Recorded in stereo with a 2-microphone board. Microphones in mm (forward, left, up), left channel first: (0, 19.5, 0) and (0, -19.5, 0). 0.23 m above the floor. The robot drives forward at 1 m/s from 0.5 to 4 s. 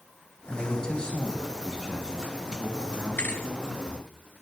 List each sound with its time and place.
0.5 s a man speaking: 25° left (ahead or behind), 1.6 m; by 4.0 s 10° left (ahead or behind), 4 m
3.2 s a thud: 55° left (ahead or behind), 1.5 m; by 3.5 s 50° left (ahead or behind), 1.6 m